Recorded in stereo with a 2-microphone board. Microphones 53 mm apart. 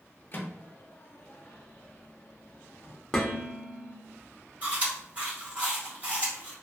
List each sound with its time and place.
0.3 s a microwave: 35° left (ahead or behind), 0.6 m
3.1 s dishes clattering: 10° left (ahead or behind), 0.7 m
4.6 s chewing: 30° right (ahead or behind), 1.4 m